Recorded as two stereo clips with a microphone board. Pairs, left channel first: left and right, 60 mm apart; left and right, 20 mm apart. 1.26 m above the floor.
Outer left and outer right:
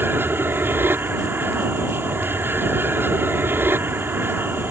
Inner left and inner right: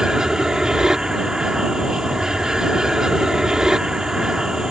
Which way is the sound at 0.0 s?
35° right (ahead or behind).